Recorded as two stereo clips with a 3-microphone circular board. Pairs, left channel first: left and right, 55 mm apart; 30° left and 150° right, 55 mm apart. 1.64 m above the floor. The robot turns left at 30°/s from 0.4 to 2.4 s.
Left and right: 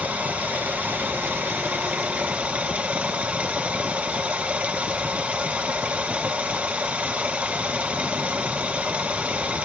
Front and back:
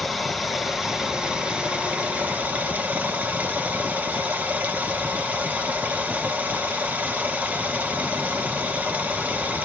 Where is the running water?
65° right, 0.8 m; by 9.7 s 125° right, 0.8 m.